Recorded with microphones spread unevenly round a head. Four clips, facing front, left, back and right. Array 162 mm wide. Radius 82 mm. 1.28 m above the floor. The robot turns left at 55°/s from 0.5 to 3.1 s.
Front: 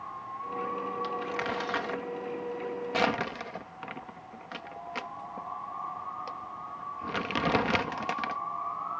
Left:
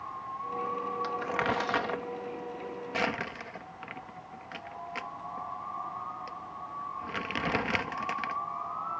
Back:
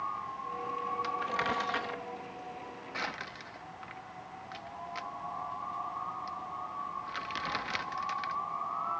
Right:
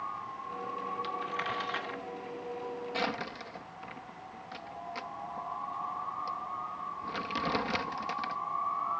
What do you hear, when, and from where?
1.0 s crumpling: 115° left; by 8.4 s 5° left